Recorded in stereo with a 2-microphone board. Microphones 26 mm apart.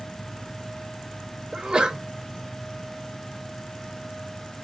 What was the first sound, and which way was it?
A sneeze, 25° right (ahead or behind).